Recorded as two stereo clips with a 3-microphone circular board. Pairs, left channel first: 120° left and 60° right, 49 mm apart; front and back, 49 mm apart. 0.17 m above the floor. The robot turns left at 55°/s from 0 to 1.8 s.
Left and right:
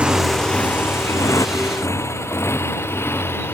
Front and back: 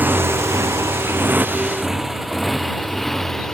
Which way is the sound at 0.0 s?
125° right.